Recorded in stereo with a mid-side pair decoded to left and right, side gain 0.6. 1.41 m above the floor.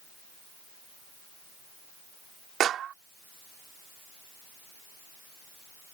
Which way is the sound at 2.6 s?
50° right.